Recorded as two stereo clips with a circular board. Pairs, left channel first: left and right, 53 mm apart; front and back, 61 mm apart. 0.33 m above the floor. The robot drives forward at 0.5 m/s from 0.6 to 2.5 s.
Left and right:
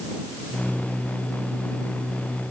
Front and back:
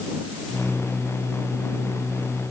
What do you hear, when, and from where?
Only background noise.